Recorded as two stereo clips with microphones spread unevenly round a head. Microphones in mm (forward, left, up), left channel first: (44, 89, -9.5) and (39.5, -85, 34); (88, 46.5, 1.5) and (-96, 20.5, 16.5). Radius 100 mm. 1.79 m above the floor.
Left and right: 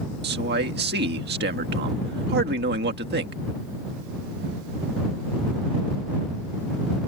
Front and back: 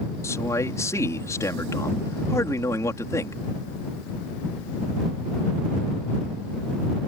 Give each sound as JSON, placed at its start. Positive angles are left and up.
{"t": 0.2, "sound": "a man speaking", "azimuth_deg": -70}